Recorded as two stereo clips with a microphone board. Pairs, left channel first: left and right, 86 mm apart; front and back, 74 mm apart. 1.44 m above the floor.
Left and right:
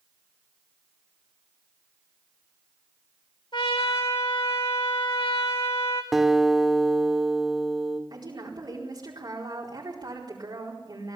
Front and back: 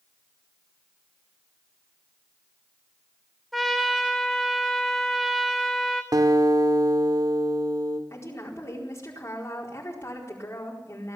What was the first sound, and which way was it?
A trumpet, 90° left.